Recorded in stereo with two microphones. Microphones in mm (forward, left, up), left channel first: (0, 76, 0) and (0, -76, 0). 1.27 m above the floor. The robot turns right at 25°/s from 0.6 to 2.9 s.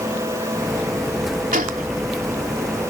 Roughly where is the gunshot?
Right.